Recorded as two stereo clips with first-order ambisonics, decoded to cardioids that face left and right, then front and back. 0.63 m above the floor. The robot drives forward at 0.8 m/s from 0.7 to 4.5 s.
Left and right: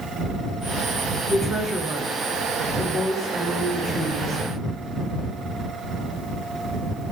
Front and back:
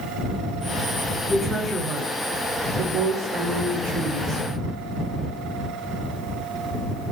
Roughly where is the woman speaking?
Ahead right.